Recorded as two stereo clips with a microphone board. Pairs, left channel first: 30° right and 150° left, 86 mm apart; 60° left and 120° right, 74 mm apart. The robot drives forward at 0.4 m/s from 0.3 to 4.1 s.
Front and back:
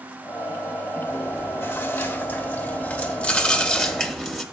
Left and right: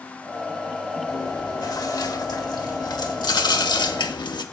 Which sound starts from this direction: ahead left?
Chewing, at 1.1 s.